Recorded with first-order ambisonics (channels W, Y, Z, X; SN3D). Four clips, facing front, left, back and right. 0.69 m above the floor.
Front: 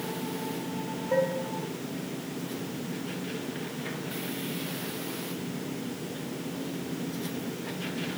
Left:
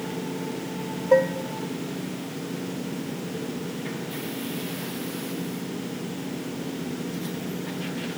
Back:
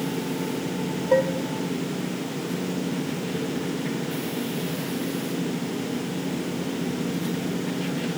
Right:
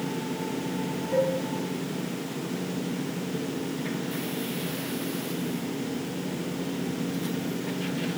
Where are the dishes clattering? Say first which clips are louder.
Left 6 dB, back 5 dB; 115° left, 1.0 m.